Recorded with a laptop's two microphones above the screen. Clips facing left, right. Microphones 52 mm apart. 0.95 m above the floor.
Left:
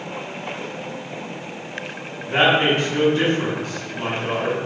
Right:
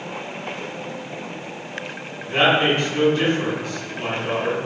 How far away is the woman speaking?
About 1.6 m.